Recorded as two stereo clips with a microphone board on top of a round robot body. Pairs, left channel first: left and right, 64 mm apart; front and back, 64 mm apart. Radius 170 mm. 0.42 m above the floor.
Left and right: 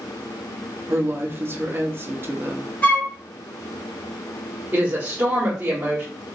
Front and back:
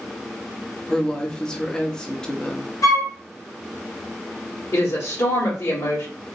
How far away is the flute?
About 2.5 m.